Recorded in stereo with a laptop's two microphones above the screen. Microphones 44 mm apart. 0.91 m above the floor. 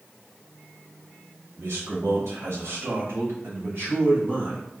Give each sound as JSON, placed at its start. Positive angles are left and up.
{"t": 1.6, "sound": "a man speaking", "side_deg": -70, "distance_m": 1.7}